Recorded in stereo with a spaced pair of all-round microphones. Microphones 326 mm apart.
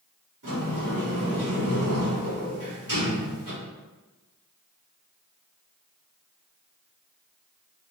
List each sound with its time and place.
0.4 s a sliding door: 70° right (ahead or behind), 1.6 m